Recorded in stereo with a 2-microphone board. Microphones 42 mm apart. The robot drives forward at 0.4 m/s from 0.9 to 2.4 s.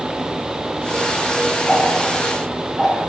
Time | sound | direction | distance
1.7 | ticking | centre (ahead or behind) | 4 m